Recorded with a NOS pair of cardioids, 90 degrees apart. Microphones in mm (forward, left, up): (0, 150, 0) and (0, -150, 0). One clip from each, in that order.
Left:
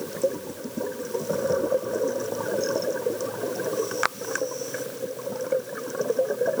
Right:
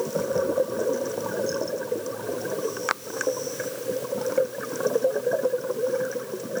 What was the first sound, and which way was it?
Only background noise.